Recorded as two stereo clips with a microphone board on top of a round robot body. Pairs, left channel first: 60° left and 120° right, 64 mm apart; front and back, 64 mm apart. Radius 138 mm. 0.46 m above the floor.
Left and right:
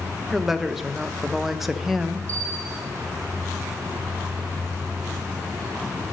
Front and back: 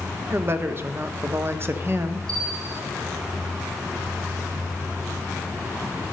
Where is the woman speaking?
155° left, 0.9 m.